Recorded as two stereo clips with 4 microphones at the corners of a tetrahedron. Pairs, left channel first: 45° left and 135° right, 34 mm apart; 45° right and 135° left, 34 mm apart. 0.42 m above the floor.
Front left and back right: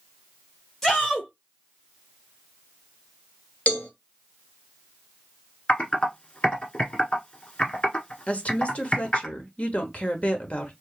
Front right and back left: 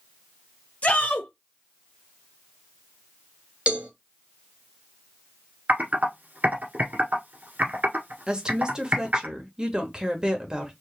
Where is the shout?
25° right, 1.0 m.